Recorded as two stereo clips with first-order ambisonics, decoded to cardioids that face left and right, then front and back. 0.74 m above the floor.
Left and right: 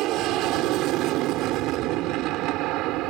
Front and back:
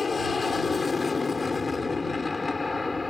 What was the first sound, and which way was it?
An aircraft, 70° right.